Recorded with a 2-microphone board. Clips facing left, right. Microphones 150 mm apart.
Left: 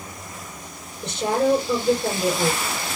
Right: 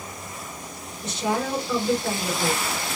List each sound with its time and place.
1.0 s a woman speaking: 55° left (ahead or behind), 2.5 m